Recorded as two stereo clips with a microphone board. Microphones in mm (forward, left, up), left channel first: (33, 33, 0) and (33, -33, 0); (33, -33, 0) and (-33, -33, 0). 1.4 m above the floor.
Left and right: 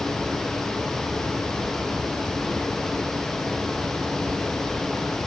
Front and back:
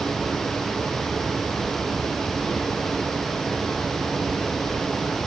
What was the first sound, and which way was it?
Only background noise.